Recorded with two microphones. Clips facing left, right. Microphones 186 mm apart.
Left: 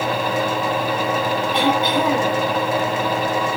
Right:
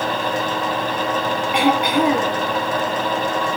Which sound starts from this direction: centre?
Throat clearing, at 1.5 s.